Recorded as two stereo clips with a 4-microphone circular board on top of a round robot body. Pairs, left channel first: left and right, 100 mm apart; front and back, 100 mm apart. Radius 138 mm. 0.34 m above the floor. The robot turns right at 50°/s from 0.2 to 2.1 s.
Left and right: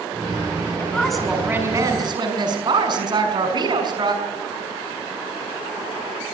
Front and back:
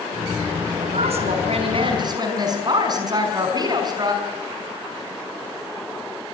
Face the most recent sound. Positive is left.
turn(degrees=-130)